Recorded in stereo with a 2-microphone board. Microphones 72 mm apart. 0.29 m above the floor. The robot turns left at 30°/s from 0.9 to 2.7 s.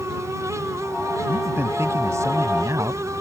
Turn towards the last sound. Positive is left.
turn(degrees=-80)